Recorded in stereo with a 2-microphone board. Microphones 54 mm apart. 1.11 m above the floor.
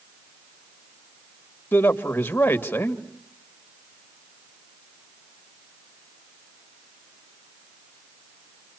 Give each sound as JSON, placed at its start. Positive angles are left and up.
{"t": 1.7, "sound": "a man speaking", "side_deg": 30, "distance_m": 2.0}